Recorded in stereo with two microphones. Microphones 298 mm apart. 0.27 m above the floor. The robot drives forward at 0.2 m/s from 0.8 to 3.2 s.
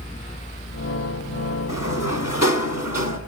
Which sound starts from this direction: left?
A sliding door, at 1.7 s.